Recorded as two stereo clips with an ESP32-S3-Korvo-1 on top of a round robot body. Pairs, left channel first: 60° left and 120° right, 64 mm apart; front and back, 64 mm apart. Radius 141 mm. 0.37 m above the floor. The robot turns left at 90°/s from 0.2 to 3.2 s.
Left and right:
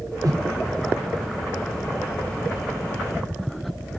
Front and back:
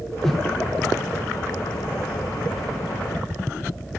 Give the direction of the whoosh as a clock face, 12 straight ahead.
3 o'clock.